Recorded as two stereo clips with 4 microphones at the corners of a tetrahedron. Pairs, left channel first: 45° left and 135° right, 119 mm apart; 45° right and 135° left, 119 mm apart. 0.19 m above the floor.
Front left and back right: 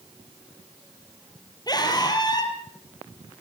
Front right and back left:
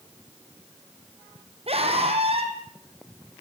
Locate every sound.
1.7 s a scream: 100° left, 6.5 m